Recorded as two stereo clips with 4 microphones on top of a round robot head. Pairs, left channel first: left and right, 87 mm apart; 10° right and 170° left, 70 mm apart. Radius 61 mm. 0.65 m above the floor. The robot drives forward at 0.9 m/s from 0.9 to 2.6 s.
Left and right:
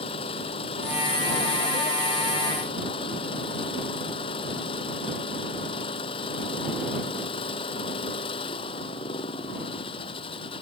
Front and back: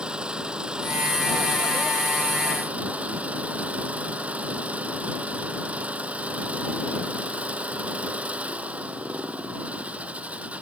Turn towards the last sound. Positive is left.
turn(degrees=100)